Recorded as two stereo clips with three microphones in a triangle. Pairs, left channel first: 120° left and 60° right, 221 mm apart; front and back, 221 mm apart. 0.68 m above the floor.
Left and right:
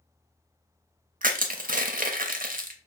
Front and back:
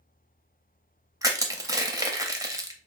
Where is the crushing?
110° right, 0.7 m.